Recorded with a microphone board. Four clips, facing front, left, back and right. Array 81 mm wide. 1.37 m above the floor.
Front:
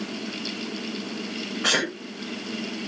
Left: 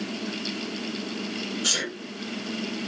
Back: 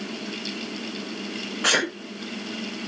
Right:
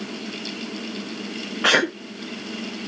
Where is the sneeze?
100° right, 0.6 m.